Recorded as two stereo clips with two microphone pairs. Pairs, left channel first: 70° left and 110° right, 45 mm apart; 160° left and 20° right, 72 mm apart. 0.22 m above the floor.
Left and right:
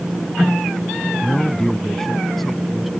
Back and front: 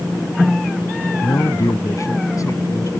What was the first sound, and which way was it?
A man speaking, 135° left.